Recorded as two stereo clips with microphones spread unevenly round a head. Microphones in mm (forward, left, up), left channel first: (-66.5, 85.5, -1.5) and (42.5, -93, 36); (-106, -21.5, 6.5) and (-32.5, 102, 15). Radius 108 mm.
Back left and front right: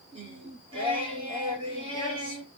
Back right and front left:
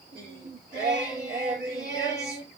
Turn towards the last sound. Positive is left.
turn(degrees=10)